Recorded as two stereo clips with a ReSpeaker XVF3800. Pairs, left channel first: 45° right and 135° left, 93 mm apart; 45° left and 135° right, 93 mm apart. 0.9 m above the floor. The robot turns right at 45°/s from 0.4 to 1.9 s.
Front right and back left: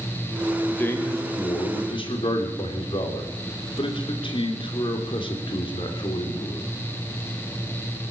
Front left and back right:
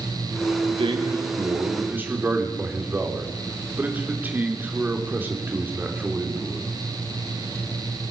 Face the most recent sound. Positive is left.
turn(degrees=-65)